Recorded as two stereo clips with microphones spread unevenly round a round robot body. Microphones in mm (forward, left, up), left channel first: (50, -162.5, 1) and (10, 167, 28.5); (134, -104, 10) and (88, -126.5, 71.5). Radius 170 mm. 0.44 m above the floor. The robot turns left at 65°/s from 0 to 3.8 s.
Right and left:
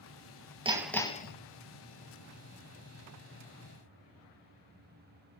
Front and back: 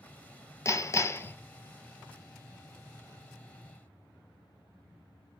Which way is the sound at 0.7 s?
20° left.